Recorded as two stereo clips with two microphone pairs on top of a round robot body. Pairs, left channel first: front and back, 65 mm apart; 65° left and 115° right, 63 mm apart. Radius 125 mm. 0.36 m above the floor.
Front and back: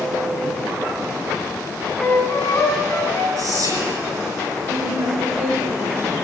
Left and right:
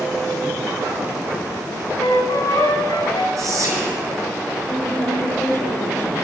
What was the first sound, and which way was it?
A flute, 55° left.